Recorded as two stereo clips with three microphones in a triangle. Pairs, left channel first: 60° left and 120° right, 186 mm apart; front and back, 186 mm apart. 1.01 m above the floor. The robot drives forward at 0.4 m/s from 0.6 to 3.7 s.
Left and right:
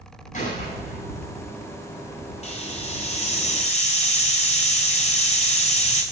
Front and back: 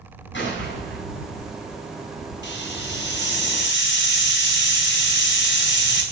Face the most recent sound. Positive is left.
turn(degrees=5)